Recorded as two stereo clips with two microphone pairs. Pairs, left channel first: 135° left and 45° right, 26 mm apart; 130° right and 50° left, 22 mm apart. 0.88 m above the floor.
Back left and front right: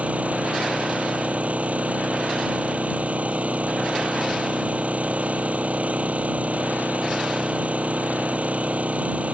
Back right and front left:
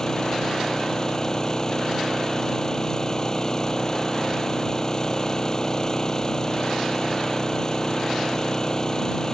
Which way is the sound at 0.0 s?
70° right.